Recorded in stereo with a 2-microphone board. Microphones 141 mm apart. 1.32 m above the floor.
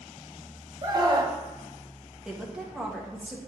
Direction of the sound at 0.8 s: 30° right (ahead or behind).